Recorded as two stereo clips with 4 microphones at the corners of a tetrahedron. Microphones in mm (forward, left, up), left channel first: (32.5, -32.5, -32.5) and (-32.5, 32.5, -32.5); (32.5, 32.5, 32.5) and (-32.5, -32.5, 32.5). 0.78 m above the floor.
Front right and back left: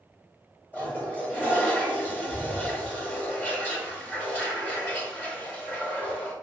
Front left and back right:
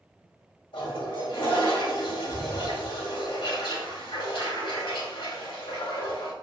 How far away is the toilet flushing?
About 1.8 m.